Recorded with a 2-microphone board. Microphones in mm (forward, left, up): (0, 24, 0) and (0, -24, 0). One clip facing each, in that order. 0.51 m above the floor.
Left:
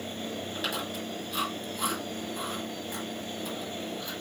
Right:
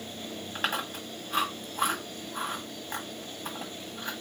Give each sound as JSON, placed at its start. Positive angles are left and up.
{"t": 0.6, "sound": "chewing", "side_deg": -45, "distance_m": 1.6}